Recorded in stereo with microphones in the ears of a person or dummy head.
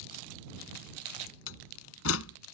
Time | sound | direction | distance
1.5 | a door slam | 85° left | ?